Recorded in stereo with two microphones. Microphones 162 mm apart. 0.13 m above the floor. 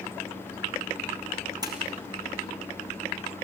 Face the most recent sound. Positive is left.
turn(degrees=-25)  # may be behind; listen again after turning